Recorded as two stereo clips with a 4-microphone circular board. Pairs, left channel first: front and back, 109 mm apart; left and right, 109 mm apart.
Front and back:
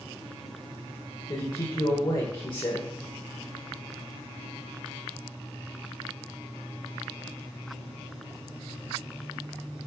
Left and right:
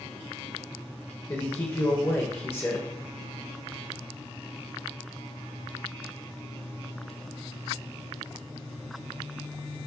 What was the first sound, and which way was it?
A man speaking, 30° left.